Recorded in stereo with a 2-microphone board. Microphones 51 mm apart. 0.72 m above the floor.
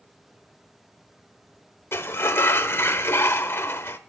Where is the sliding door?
50° left (ahead or behind), 0.6 m.